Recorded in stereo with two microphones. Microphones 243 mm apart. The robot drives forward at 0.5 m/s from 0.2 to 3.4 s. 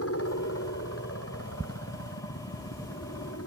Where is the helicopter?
75° left (ahead or behind).